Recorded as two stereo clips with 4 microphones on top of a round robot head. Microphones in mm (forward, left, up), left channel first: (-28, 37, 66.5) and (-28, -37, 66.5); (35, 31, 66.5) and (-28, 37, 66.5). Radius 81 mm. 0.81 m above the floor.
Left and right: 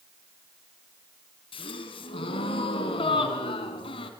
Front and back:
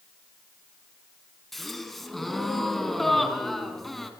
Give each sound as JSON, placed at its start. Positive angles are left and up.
{"t": 1.5, "sound": "a gasp", "azimuth_deg": 80, "distance_m": 3.5}